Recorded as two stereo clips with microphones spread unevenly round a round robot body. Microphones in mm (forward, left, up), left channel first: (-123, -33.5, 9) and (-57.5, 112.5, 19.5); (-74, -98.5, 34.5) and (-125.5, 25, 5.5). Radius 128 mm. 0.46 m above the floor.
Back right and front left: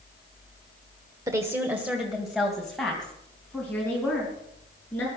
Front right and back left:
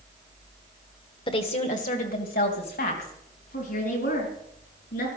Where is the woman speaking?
5° right, 1.3 m; by 5.1 s 30° right, 6.5 m.